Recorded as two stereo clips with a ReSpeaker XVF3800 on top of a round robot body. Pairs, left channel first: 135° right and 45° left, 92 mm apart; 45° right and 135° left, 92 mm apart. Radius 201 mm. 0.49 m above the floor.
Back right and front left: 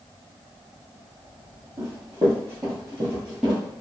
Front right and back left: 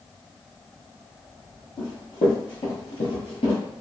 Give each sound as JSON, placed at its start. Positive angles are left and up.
{"t": 1.8, "sound": "running footsteps", "azimuth_deg": -10, "distance_m": 1.5}